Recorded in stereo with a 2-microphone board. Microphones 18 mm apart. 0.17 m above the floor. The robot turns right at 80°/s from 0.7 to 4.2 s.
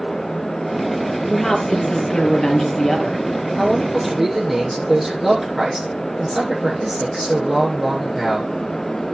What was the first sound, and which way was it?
A woman speaking, 5° left.